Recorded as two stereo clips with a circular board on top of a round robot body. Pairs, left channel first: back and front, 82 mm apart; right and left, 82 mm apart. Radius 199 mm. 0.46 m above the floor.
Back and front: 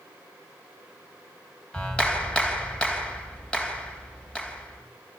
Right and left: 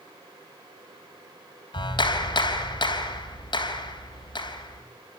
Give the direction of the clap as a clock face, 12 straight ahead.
3 o'clock.